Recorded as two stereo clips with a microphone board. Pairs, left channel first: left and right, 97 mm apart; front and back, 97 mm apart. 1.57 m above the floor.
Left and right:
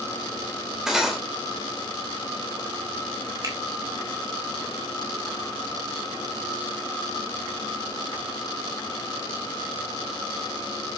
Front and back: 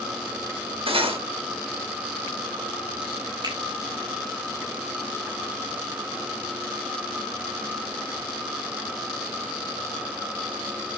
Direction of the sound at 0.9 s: 175° right.